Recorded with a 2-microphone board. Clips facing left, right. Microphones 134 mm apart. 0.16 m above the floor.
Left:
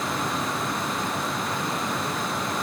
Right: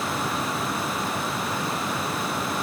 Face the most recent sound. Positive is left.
No sound to turn to.